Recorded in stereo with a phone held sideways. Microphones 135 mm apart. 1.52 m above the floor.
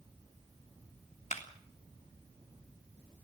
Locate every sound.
1.3 s a clap: 60° left (ahead or behind), 3 m